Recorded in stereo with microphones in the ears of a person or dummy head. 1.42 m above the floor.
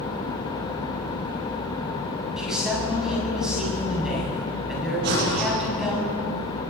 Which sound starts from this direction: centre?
A man speaking, at 2.4 s.